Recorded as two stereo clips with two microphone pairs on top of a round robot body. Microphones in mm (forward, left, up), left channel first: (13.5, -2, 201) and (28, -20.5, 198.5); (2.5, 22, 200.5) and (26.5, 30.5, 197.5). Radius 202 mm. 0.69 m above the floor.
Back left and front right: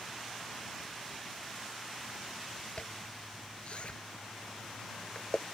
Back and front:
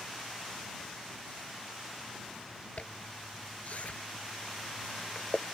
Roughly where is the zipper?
Behind.